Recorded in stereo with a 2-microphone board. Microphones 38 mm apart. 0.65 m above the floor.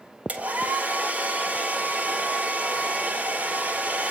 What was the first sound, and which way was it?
A hair dryer, 40° right (ahead or behind).